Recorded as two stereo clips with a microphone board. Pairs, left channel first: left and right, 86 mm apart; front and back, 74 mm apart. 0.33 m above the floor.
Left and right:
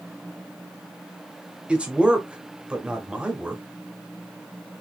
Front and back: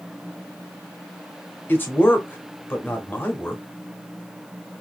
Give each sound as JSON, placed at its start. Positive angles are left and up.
{"t": 1.7, "sound": "a man speaking", "azimuth_deg": -25, "distance_m": 1.0}